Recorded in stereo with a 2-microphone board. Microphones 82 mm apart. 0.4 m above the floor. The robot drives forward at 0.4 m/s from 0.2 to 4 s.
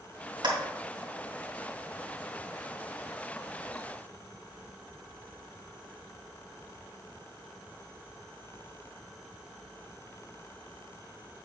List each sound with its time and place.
0.4 s a clap: 70° right (ahead or behind), 2.5 m